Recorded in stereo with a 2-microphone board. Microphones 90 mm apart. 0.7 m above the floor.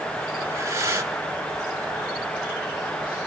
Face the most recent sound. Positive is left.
turn(degrees=-35)  # may be behind; listen again after turning